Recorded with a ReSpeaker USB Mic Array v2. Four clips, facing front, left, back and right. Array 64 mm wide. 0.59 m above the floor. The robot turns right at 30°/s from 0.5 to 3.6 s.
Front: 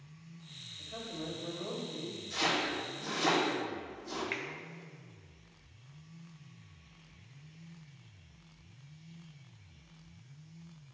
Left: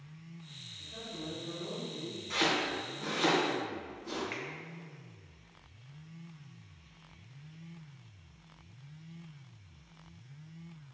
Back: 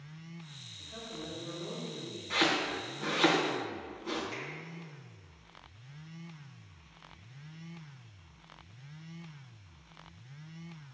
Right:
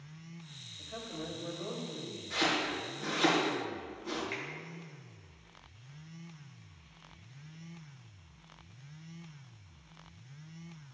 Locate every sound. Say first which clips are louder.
0.8 s a man speaking: right 2 dB, front 2 dB; 70° right, 3 m; by 2.2 s 30° right, 3 m
2.3 s chopping: left 1 dB, back 3 dB; 160° left, 2.5 m; by 4.2 s 165° right, 2.5 m
4.3 s a finger snap: right 1 dB, front 2 dB; straight ahead, 1.4 m